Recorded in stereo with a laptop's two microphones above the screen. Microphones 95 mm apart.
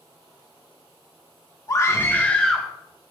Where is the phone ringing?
I don't hear a phone ringing.